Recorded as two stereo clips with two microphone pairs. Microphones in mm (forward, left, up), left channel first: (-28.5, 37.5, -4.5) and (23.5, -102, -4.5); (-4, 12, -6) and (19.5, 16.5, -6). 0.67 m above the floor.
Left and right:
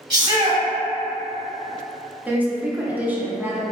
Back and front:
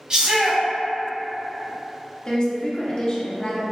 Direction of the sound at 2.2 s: 140° right.